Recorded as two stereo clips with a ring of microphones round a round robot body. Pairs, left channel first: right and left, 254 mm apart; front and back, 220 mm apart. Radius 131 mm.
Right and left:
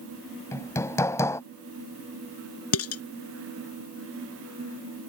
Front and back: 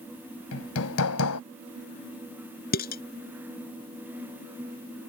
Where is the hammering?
10° right.